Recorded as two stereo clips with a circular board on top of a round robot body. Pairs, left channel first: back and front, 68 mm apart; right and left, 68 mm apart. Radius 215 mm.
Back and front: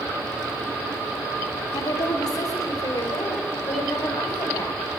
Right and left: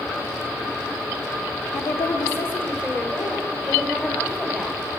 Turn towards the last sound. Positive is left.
turn(degrees=-155)